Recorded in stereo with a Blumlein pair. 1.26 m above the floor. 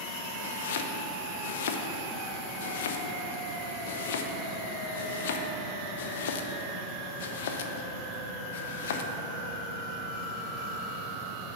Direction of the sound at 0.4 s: 55° left.